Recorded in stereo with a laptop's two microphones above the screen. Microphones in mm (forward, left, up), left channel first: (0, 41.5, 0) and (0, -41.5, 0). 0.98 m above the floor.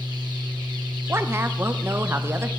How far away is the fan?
About 0.9 m.